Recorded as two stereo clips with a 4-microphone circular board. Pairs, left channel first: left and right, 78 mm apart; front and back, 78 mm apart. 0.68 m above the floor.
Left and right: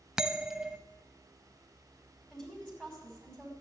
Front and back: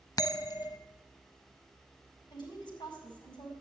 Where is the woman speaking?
10° left, 5 m.